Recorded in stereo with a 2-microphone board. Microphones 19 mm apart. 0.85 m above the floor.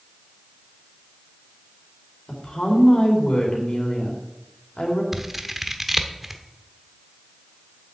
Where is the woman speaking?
65° left (ahead or behind), 3 m.